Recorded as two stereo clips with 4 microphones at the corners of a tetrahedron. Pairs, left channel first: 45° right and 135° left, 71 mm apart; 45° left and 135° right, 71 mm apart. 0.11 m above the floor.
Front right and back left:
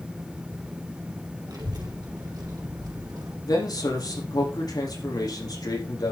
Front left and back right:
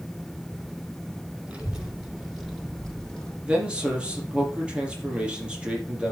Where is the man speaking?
60° right, 4.5 m.